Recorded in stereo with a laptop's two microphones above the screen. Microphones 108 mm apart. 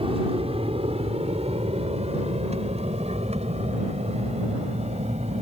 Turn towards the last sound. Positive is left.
turn(degrees=-75)  # may be behind; listen again after turning